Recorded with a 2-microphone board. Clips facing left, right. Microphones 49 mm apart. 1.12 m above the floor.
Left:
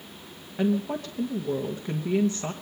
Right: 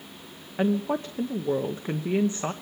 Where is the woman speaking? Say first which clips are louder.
Right 1 dB; 25° right (ahead or behind), 0.9 m.